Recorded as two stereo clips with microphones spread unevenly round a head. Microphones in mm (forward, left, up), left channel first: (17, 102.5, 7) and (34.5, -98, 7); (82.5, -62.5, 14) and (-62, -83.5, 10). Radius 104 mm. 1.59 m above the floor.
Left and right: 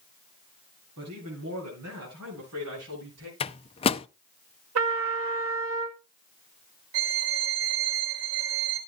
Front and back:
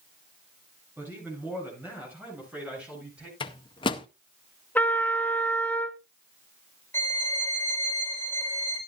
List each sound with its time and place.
1.0 s a man speaking: 95° right, 8.5 m; by 3.3 s 90° right, 9.5 m
3.4 s a microwave: 50° left, 0.5 m
4.8 s a trumpet: 70° right, 2 m
6.9 s a violin: 65° right, 4 m